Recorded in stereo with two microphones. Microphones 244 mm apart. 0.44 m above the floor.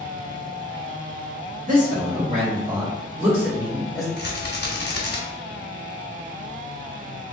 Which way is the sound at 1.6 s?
30° right (ahead or behind).